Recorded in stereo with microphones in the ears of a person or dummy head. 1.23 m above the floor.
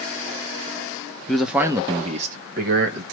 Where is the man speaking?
Centre (ahead or behind), 0.7 m; by 3.0 s 70° right (ahead or behind), 1.2 m.